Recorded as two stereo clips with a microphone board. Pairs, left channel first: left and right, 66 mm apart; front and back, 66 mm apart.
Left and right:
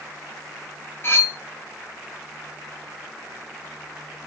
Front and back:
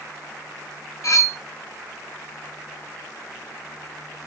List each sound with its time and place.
1.0 s cutlery clinking: 35° left, 0.6 m